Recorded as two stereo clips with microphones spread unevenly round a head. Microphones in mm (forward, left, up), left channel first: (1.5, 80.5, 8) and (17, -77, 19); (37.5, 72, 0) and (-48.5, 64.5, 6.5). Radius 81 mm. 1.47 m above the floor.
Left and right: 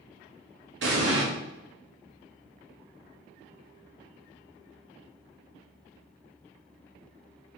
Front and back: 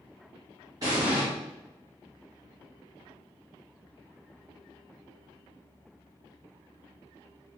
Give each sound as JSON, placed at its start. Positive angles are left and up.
{"t": 0.8, "sound": "an explosion", "azimuth_deg": -105, "distance_m": 1.2}